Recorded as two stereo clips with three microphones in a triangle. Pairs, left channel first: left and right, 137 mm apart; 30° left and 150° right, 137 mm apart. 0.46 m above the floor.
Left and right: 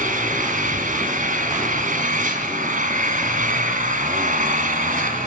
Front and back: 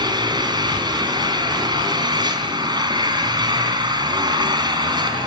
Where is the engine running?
90° right, 4 m.